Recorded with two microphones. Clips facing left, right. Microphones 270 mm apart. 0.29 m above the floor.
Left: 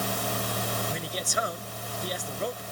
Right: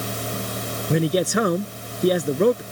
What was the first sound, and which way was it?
A man speaking, 75° right (ahead or behind).